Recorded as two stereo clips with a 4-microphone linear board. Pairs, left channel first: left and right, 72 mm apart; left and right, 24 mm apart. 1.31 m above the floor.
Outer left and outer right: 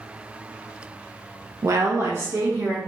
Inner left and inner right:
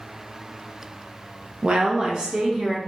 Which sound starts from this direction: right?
A woman speaking, at 1.6 s.